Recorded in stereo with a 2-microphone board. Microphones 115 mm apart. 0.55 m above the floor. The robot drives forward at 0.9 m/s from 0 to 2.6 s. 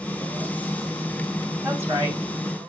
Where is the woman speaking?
20° right (ahead or behind), 3 m; by 2.2 s 25° right (ahead or behind), 2.5 m.